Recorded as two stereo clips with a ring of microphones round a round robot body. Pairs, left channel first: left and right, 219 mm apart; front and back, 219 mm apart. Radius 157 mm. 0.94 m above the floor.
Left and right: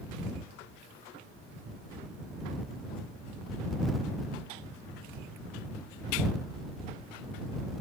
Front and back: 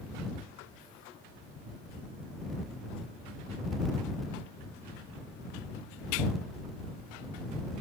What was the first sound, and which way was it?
Only background noise.